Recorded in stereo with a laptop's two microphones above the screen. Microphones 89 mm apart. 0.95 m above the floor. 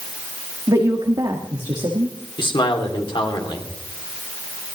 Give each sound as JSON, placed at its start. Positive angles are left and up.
{"t": 0.7, "sound": "a woman speaking", "side_deg": -55, "distance_m": 1.5}
{"t": 2.4, "sound": "a man speaking", "side_deg": 75, "distance_m": 2.5}